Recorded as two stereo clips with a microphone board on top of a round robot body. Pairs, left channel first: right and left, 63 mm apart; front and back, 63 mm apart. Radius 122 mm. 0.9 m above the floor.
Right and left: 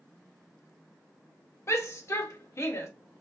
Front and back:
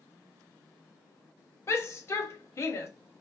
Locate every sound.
1.7 s a shout: 45° right, 0.9 m